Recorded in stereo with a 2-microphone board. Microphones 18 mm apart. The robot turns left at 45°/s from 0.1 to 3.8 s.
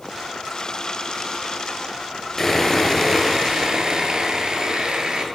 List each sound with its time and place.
2.4 s sawing: 15° left, 0.7 m; by 5.2 s 50° right, 0.7 m